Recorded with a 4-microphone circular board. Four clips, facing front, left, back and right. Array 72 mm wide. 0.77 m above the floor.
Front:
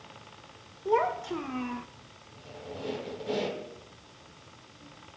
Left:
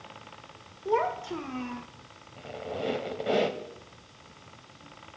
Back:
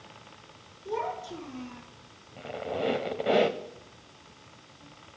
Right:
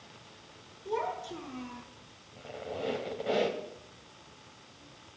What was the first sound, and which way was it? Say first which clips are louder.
A child speaking: left 6 dB, front 6 dB; 40° left.